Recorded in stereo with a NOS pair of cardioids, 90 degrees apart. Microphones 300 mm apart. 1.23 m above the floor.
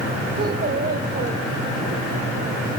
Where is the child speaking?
35° right, 4.5 m.